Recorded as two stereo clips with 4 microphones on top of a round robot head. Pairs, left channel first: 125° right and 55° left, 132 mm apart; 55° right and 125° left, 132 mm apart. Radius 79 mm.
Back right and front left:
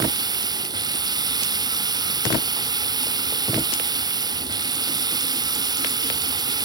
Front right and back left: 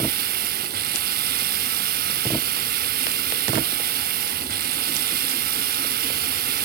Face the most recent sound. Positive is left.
turn(degrees=115)